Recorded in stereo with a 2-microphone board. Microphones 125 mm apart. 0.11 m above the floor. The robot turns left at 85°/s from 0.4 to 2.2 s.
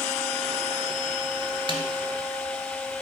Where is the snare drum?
40° right (ahead or behind), 1.3 m.